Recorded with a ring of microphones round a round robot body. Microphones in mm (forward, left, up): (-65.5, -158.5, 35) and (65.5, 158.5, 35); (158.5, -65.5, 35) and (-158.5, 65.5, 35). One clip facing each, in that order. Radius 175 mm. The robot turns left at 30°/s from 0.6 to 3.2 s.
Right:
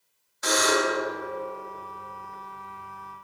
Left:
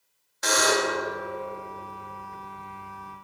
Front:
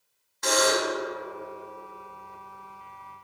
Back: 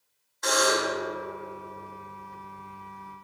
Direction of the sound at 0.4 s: 35° left.